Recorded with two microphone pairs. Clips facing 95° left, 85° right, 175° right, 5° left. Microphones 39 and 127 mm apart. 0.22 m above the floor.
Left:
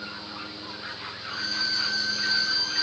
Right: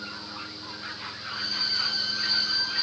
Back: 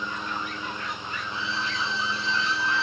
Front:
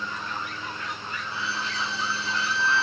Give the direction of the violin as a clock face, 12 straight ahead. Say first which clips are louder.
Left 2 dB, back 1 dB; 12 o'clock.